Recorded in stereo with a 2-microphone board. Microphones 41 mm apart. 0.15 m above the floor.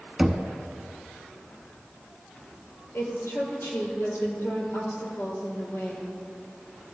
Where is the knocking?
5° right (ahead or behind), 0.8 m.